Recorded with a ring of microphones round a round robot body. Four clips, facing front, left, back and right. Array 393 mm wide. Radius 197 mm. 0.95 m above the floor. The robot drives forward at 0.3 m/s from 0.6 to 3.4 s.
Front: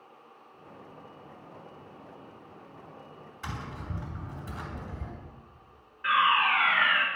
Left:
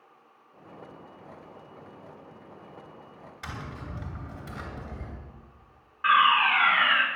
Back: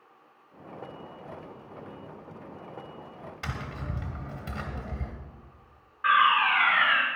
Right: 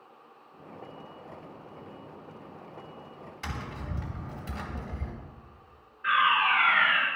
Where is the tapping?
175° right, 2.5 m.